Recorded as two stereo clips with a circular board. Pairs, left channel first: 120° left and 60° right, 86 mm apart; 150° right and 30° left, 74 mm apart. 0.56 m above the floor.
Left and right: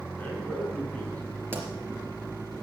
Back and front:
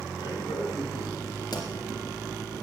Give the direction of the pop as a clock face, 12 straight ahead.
4 o'clock.